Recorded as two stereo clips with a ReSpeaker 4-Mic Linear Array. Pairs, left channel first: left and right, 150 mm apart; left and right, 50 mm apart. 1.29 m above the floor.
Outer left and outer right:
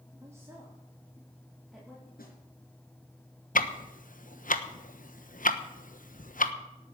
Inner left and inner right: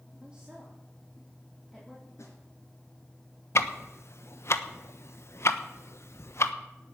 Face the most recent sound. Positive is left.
turn(degrees=65)  # may be behind; listen again after turning